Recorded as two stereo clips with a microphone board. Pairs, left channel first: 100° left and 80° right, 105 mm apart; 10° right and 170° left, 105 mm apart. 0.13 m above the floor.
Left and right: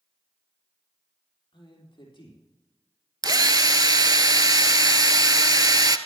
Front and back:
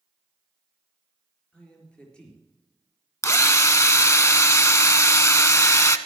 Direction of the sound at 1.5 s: 65° left.